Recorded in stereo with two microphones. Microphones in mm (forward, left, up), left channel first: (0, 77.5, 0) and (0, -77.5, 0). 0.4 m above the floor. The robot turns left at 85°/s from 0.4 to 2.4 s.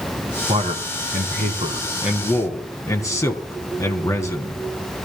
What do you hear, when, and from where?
0.5 s a man speaking: 40° right, 4 m; by 4.6 s 160° left, 4 m